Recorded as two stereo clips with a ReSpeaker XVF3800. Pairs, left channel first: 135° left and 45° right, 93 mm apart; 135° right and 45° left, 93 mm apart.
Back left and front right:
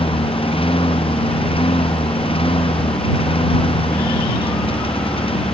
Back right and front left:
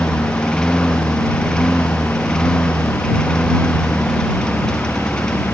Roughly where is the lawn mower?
Behind left.